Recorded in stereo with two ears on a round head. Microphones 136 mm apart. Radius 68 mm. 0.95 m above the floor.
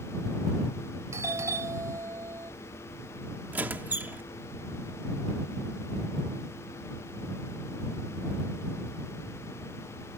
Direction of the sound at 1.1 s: 20° right (ahead or behind).